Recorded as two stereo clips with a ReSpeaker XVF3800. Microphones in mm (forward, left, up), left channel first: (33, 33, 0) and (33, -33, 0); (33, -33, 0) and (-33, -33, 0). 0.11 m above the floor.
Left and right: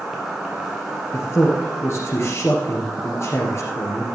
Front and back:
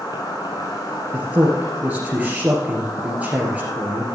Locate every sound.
0.0 s an insect: 5° right, 3.5 m
1.1 s a man speaking: 120° left, 2.5 m